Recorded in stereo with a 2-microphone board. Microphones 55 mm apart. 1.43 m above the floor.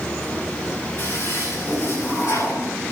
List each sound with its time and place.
1.0 s a toilet flushing: 60° left (ahead or behind), 5.5 m